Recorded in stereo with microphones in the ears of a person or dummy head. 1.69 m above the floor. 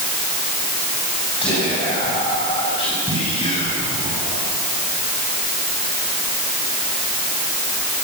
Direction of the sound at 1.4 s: 25° left (ahead or behind).